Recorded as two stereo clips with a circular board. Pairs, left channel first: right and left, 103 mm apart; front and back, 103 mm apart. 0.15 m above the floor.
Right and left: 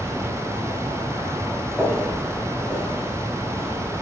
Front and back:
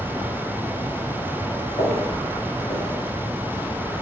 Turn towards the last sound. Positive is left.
turn(degrees=-30)